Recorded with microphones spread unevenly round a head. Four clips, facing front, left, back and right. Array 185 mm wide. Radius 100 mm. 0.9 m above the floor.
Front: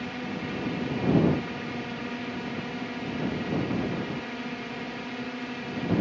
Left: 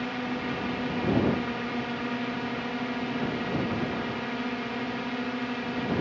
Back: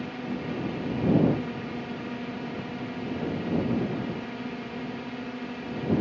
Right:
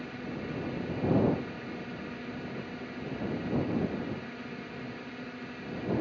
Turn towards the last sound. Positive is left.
turn(degrees=70)